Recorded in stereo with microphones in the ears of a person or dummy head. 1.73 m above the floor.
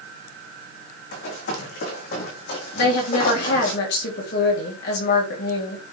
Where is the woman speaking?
60° left (ahead or behind), 3.5 m.